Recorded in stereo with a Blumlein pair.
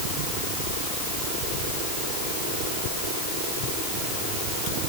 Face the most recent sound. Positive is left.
No sound to turn to.